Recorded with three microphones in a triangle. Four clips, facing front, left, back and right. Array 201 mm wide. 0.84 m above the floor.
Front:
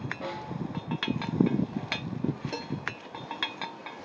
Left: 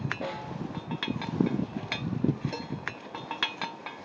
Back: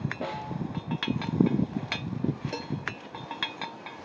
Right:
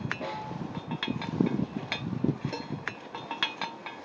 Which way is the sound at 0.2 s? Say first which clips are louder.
Even, back 1 dB; 150° left.